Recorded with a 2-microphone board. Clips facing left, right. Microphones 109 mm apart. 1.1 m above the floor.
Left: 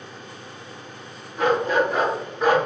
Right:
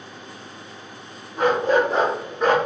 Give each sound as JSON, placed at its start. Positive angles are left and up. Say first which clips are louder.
{"t": 1.4, "sound": "a dog barking", "louder": "right 2 dB", "side_deg": -35, "distance_m": 1.3}